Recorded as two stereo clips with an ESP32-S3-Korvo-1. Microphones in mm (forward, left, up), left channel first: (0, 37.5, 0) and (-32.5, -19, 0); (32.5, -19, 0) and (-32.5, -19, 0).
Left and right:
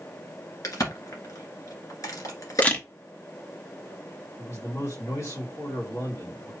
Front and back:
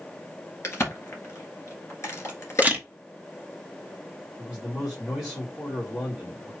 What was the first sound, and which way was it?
A crack, 40° left.